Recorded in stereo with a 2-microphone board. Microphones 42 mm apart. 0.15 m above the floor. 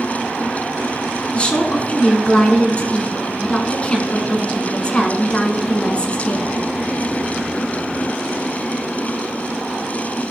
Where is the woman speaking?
30° left (ahead or behind), 1.5 m.